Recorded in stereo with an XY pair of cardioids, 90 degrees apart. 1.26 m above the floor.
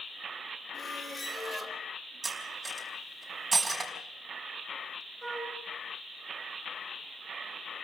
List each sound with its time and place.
0.7 s a squeak: 25° left, 3 m
2.2 s cutlery clinking: 25° right, 5 m
5.2 s a flute: straight ahead, 9 m